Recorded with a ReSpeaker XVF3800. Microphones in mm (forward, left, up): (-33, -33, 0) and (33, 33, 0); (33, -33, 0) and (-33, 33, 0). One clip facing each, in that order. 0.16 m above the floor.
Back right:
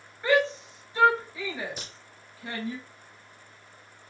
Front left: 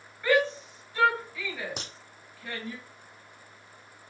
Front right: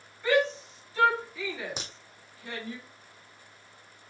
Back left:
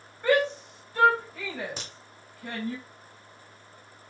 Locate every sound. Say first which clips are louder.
0.2 s a shout: back right 1 dB, back left 2 dB; 160° left, 2.5 m
1.8 s a crack: front left 2 dB, front right 1 dB; 25° left, 2.5 m